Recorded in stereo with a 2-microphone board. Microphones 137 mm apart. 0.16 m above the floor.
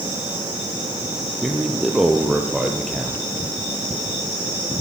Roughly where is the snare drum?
I don't hear a snare drum.